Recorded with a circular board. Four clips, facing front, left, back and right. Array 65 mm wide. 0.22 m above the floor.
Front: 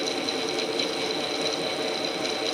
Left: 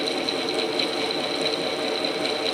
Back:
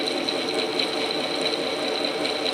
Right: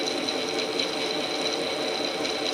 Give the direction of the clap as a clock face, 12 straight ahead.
No clap in this recording.